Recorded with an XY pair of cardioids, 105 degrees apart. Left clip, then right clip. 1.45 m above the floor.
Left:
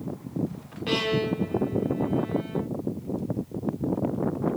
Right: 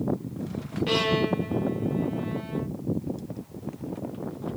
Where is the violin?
5° left, 1.3 m.